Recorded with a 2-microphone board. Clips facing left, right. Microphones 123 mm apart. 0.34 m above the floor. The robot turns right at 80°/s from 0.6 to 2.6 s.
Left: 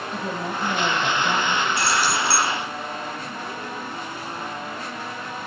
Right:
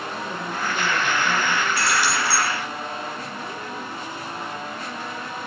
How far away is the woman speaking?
About 1.9 m.